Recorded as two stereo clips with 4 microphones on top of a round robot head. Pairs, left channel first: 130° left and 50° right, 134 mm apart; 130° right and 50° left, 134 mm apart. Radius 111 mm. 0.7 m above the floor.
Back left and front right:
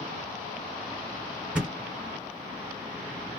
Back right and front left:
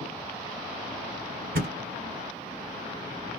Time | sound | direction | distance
1.6 | a thud | 35° left | 1.2 m